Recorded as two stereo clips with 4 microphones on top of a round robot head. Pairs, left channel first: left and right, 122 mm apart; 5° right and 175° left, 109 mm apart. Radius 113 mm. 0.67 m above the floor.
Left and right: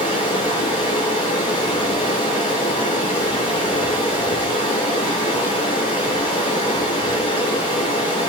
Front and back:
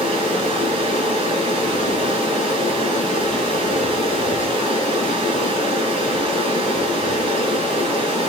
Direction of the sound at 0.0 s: 145° left.